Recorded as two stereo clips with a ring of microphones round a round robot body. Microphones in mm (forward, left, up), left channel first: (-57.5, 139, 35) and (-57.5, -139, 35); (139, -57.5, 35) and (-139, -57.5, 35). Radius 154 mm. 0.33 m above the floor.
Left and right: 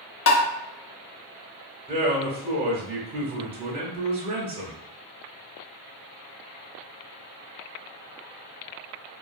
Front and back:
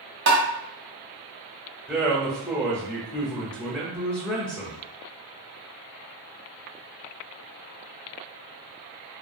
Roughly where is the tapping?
Behind left.